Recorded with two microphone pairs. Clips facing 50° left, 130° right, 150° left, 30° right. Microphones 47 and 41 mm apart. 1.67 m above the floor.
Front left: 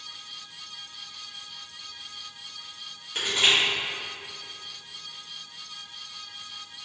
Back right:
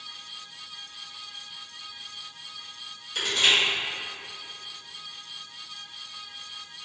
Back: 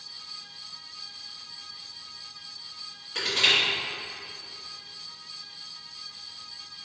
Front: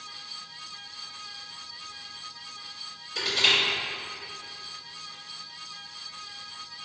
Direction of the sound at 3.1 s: 115° left.